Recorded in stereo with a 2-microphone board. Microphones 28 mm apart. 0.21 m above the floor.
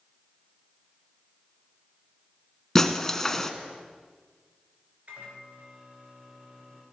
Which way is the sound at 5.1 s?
55° right (ahead or behind).